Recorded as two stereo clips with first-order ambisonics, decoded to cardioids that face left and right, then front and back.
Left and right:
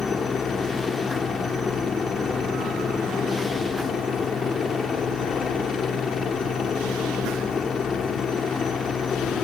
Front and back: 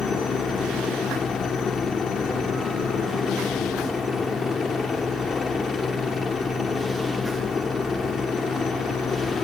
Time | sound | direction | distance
0.0 | a helicopter | 50° left | ?